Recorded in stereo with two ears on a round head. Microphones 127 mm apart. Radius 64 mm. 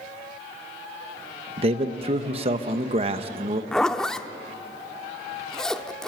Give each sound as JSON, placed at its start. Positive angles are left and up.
{"t": 1.6, "sound": "a man speaking", "side_deg": -40, "distance_m": 1.1}
{"t": 3.7, "sound": "a zipper", "side_deg": 5, "distance_m": 0.6}